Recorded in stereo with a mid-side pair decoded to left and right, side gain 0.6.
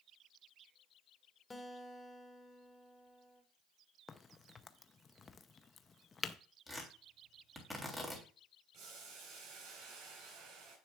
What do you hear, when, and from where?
1.5 s a guitar: 15° left, 1.5 m
4.1 s a crack: 30° left, 0.6 m
6.7 s tearing paper: straight ahead, 3 m
8.7 s boiling: 65° right, 4.5 m